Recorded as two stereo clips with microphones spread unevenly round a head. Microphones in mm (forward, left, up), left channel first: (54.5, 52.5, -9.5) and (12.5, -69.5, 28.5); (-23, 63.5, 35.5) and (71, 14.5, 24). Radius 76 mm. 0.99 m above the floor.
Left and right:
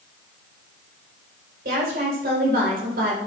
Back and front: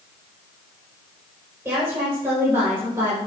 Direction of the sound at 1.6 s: 100° right.